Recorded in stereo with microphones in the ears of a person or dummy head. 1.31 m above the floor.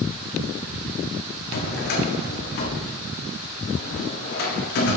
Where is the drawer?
55° left (ahead or behind), 1.4 m.